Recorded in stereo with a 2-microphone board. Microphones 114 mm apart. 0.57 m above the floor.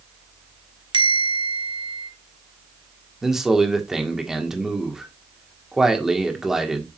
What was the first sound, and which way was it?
A bell, 50° right (ahead or behind).